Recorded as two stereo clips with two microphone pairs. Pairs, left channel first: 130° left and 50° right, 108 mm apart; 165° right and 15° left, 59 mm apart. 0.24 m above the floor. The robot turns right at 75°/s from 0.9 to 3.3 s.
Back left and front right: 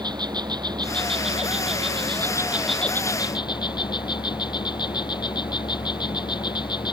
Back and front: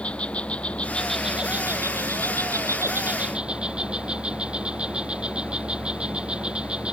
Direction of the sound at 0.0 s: 95° right.